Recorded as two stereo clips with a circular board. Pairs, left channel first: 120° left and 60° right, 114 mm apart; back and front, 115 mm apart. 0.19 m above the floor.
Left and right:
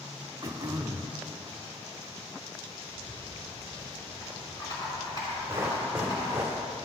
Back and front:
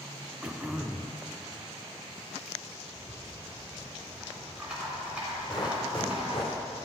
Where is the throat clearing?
75° right, 0.6 m.